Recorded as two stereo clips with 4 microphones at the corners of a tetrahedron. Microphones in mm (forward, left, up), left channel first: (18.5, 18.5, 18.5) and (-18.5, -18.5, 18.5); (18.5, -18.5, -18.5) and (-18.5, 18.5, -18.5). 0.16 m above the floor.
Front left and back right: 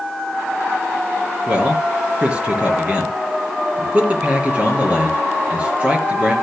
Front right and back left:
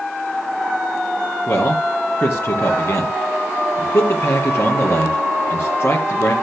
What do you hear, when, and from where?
1.5 s a man speaking: 70° right, 4 m